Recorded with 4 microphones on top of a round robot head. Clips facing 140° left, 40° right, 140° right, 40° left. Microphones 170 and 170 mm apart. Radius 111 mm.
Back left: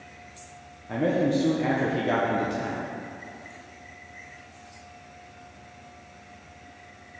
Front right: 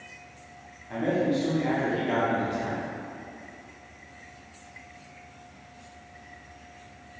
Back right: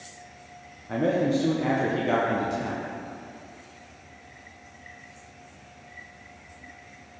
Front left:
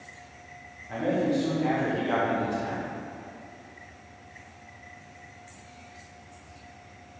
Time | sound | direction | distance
0.9 | a man speaking | straight behind | 1.2 m